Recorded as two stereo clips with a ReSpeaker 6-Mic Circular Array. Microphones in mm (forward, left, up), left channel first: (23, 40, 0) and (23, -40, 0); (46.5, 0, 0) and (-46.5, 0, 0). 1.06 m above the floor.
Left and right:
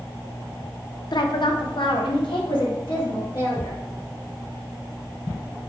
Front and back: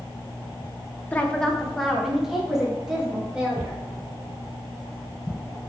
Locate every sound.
1.1 s a woman speaking: 70° left, 0.5 m; by 3.8 s 100° left, 2.0 m